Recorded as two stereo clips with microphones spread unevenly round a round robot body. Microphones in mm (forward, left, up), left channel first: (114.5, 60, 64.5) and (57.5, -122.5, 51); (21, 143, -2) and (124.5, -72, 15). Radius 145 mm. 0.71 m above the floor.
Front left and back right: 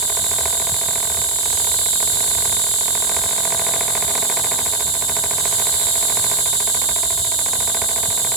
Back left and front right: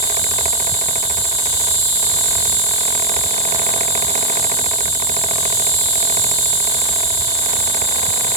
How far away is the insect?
About 4.5 m.